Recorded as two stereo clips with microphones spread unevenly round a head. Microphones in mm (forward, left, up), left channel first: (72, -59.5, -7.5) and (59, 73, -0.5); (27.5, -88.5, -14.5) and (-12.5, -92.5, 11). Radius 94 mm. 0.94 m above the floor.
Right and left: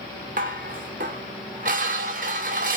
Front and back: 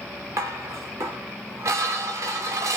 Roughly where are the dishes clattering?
Behind left.